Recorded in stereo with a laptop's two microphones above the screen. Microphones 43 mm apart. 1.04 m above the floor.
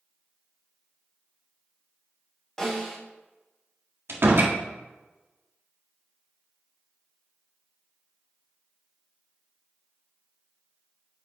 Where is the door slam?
60° right (ahead or behind), 1.5 m.